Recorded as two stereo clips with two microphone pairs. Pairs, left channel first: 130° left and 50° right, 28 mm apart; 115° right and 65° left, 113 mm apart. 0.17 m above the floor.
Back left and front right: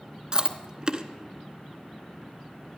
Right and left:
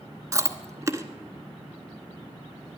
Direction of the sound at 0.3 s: 10° left.